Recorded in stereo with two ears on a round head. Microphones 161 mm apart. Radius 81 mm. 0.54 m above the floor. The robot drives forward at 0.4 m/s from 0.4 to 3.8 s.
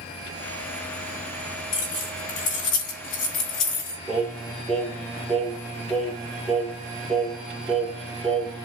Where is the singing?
5° left (ahead or behind), 1.9 m.